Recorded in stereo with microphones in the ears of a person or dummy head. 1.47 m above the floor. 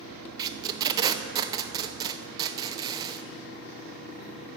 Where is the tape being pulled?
25° right (ahead or behind), 0.6 m.